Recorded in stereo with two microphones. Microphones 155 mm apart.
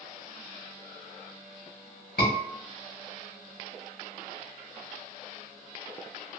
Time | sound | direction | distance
2.2 | a scream | 85° left | 1.4 m